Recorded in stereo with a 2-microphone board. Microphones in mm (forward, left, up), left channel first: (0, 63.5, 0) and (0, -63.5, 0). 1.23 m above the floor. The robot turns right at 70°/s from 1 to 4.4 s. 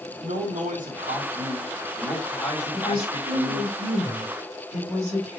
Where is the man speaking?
85° right, 2.0 m; by 3.7 s 105° left, 2.0 m.